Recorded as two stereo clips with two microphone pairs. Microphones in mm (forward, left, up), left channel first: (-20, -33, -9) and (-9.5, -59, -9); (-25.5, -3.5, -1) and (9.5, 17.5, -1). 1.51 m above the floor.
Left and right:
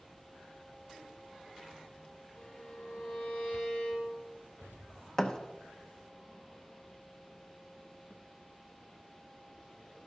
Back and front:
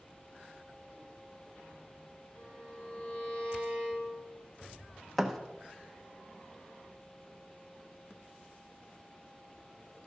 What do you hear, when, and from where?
2.4 s a violin: 160° left, 4 m
5.2 s a thud: 130° left, 0.9 m